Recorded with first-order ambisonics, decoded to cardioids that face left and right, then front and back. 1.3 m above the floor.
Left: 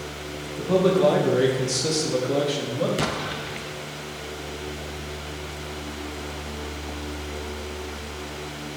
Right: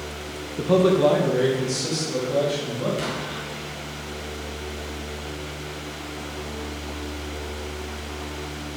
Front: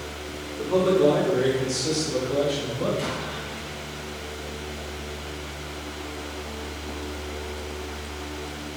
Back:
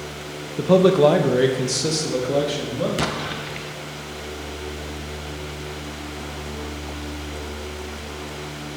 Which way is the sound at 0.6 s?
160° right.